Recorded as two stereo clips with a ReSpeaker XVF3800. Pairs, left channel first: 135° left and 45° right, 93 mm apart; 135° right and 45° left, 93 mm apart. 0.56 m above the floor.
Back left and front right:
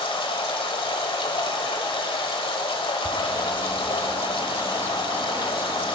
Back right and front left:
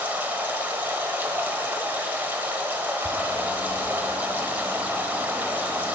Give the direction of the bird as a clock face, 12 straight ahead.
1 o'clock.